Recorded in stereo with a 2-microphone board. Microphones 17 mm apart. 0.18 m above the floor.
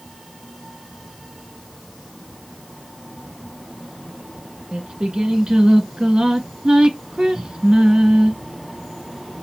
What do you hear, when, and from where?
4.7 s singing: 60° right (ahead or behind), 1.4 m